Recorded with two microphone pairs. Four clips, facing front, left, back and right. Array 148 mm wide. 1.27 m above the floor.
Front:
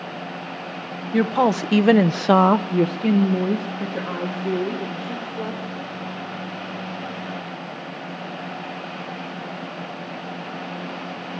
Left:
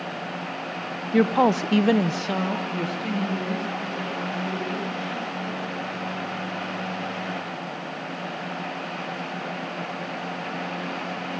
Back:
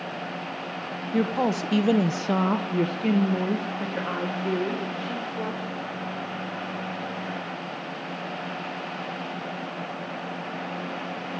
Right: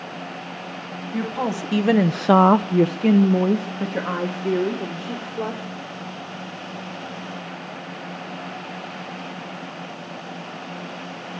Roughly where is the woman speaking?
Ahead left.